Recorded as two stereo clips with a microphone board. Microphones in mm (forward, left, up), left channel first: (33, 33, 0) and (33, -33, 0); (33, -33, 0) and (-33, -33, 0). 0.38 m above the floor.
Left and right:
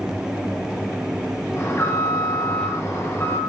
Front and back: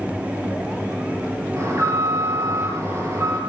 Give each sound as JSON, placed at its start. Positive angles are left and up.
{"t": 1.6, "sound": "an alarm", "azimuth_deg": 135, "distance_m": 7.0}